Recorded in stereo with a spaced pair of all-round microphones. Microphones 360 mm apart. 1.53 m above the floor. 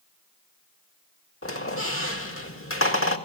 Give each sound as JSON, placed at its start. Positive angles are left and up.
{"t": 1.4, "sound": "a squeak", "side_deg": 35, "distance_m": 2.0}